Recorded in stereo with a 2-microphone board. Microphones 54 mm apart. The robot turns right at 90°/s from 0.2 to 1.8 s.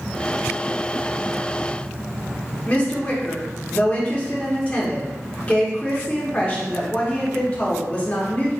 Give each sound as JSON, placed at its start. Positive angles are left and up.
{"t": 2.7, "sound": "a woman speaking", "side_deg": 25, "distance_m": 1.0}